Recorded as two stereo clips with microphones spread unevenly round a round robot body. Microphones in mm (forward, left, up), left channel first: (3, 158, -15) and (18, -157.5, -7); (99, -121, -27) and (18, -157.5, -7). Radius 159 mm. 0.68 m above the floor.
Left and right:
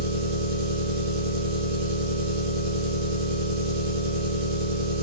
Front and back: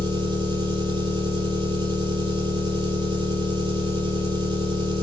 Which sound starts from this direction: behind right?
An engine running, at 0.0 s.